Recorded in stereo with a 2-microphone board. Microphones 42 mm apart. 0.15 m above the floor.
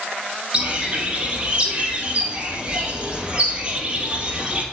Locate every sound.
0.5 s a bird: 30° right (ahead or behind), 1.5 m